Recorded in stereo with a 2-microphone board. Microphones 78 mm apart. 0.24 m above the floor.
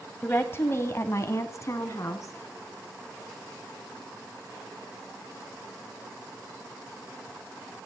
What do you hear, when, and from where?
0.2 s a woman speaking: 25° left (ahead or behind), 1.3 m; by 2.3 s 45° left (ahead or behind), 2.5 m